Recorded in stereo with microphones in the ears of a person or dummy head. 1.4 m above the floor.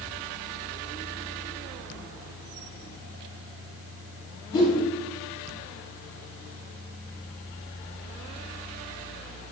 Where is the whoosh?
15° left (ahead or behind), 1.0 m.